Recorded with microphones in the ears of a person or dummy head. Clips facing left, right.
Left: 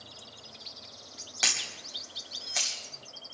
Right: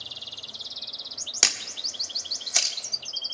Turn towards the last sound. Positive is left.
turn(degrees=-55)  # may be behind; listen again after turning